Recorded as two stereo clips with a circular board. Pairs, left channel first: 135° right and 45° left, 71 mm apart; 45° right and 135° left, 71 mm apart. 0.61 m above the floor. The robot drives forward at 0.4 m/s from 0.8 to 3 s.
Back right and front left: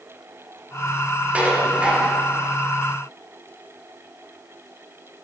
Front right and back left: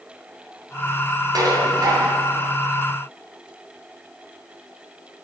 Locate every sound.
1.3 s dishes clattering: 115° left, 3 m; by 2.2 s 120° left, 3 m